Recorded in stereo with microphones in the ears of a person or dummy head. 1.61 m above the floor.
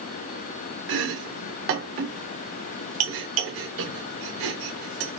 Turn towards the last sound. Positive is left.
turn(degrees=-65)  # may be behind; listen again after turning